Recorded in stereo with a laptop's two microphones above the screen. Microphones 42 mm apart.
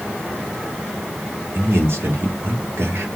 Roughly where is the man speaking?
Right.